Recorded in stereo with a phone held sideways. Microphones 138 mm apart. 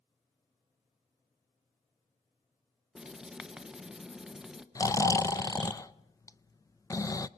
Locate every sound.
3.0 s writing: 5° right (ahead or behind), 1.0 m
4.8 s snoring: 25° left (ahead or behind), 0.5 m